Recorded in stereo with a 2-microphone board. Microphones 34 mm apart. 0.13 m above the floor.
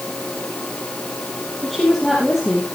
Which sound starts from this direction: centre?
A woman speaking, at 1.6 s.